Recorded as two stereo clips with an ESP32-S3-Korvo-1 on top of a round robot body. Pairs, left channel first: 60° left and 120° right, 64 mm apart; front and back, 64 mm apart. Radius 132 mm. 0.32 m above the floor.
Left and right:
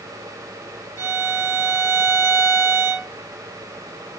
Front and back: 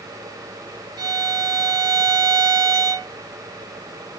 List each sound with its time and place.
1.0 s a violin: 175° right, 2.5 m